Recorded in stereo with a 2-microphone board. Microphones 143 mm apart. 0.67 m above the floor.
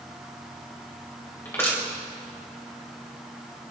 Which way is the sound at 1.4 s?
15° left (ahead or behind).